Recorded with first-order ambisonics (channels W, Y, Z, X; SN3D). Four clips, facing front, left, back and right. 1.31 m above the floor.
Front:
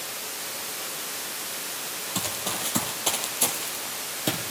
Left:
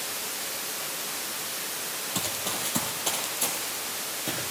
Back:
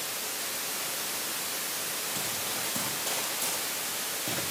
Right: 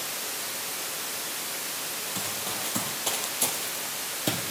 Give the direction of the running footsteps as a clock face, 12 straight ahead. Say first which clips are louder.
Left 3 dB, front 3 dB; 11 o'clock.